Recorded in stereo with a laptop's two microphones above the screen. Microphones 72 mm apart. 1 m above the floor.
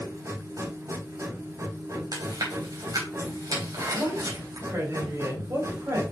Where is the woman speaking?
40° right (ahead or behind), 4.5 m.